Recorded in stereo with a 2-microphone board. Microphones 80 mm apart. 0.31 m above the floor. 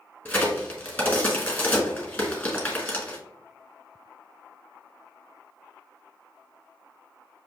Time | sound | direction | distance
0.2 | a crack | 20° left (ahead or behind) | 1.3 m